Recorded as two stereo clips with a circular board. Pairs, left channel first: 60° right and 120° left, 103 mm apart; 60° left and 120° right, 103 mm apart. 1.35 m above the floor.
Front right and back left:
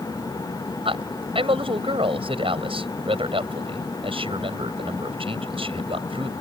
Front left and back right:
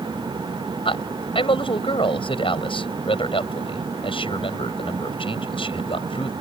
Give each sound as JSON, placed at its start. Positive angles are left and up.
{"t": 0.8, "sound": "a man speaking", "azimuth_deg": 90}